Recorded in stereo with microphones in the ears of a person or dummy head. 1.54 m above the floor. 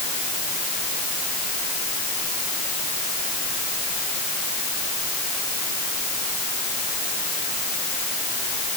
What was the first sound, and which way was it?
Only background noise.